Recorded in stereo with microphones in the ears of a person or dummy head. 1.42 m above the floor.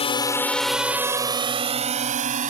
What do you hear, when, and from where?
0.0 s a drone: 30° left (ahead or behind); by 2.5 s 40° right (ahead or behind)